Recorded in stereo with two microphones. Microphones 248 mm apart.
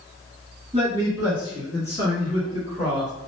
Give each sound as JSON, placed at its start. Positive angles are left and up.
{"t": 0.7, "sound": "a man speaking", "side_deg": -25, "distance_m": 1.8}